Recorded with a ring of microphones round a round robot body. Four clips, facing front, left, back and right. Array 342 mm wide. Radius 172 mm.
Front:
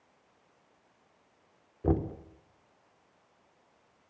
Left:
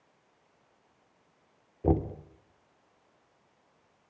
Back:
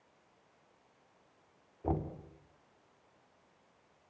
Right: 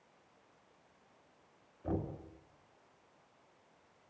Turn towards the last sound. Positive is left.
turn(degrees=60)